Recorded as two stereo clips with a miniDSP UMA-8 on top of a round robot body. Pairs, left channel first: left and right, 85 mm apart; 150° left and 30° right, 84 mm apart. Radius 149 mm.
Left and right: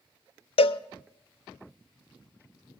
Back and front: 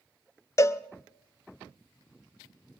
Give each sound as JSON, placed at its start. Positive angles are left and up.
{"t": 0.6, "sound": "a cowbell", "azimuth_deg": 90, "distance_m": 0.5}